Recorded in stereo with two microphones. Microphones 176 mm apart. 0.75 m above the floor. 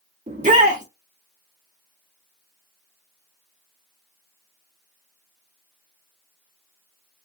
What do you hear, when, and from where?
0.3 s a shout: 45° right (ahead or behind), 1.2 m